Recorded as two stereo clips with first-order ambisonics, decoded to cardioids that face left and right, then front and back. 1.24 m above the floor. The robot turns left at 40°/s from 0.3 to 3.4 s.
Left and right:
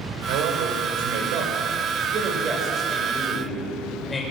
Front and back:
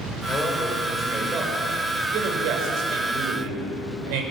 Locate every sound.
0.3 s a man speaking: 70° right, 5.5 m; by 4.2 s 165° left, 5.5 m